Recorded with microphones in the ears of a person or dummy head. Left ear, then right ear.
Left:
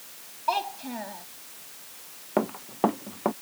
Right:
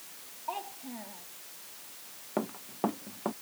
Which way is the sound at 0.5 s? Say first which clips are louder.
Left 11 dB; 80° left.